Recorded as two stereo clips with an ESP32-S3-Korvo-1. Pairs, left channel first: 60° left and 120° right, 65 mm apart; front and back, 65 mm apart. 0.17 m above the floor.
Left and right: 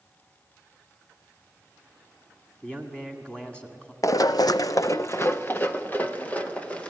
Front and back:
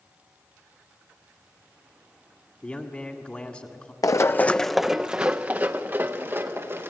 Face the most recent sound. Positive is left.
turn(degrees=130)